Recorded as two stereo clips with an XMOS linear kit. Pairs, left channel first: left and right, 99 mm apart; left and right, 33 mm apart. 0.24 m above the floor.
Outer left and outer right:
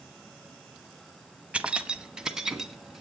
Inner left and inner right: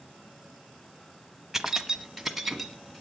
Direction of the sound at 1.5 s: 15° right (ahead or behind).